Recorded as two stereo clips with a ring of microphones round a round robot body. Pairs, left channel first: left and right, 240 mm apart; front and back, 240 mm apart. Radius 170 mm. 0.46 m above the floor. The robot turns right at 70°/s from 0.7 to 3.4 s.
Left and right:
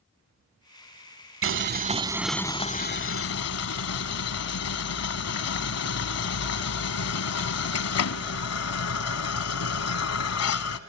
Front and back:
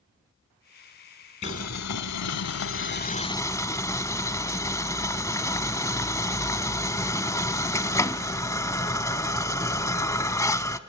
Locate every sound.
1.4 s boiling: 60° right, 0.9 m; by 10.8 s 80° left, 0.9 m